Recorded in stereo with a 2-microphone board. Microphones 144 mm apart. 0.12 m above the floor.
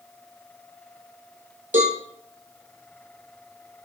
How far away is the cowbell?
About 1.9 m.